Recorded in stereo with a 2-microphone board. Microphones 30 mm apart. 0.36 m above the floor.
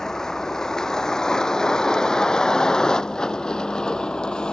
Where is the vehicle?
15° left (ahead or behind); by 4.5 s 25° left (ahead or behind).